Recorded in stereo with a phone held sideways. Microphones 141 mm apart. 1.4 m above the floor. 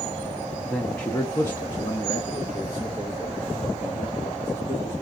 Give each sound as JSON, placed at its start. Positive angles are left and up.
{"t": 0.7, "sound": "a man speaking", "side_deg": 10, "distance_m": 0.9}